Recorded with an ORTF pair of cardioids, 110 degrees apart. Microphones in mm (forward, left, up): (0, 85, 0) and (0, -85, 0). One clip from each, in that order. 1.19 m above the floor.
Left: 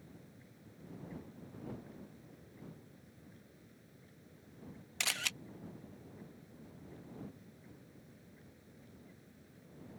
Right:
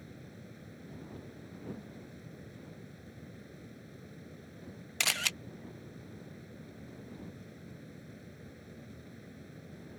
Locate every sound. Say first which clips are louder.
0.0 s a fan: right 7 dB; 55° right
5.0 s a camera shutter: right 5 dB; 25° right